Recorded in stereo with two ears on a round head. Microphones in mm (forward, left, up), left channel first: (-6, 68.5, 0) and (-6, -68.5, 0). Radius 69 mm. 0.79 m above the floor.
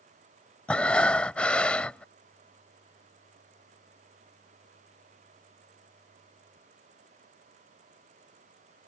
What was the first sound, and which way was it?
Breathing, 10° left (ahead or behind).